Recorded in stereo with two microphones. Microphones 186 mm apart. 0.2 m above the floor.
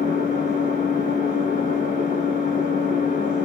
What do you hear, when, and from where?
0.0 s an engine running: 45° left (ahead or behind), 1.5 m